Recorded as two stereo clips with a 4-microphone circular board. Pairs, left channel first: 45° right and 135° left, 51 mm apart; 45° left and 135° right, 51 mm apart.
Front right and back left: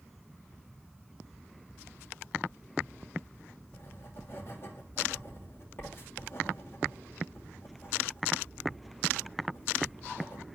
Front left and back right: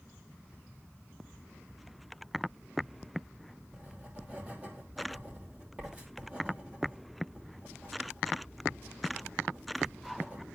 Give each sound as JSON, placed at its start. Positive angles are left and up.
{"t": 3.7, "sound": "writing", "azimuth_deg": -80, "distance_m": 3.0}